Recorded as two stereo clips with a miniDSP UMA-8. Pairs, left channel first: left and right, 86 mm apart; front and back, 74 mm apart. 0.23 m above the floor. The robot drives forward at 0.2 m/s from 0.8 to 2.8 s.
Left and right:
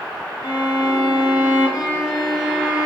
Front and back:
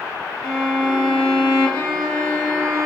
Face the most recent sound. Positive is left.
turn(degrees=-175)